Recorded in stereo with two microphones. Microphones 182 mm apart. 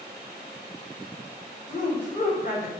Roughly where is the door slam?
I don't hear a door slam.